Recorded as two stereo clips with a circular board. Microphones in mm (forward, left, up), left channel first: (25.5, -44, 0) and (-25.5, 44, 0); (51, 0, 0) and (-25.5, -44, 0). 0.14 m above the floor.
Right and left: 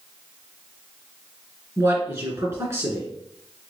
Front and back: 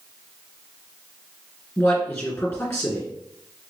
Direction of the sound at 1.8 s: 85° left.